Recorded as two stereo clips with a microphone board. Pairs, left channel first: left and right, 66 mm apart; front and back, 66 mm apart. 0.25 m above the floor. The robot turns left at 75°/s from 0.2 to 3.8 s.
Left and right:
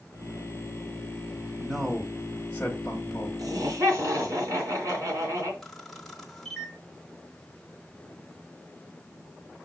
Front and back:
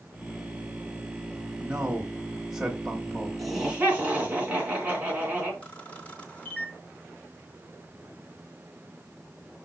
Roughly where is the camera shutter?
Ahead.